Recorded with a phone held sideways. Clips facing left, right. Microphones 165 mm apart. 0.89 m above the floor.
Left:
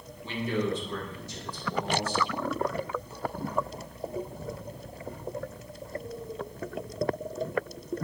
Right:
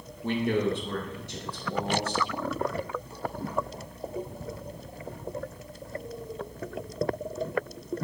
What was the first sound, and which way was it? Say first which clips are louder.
A man speaking: right 4 dB; 55° right (ahead or behind).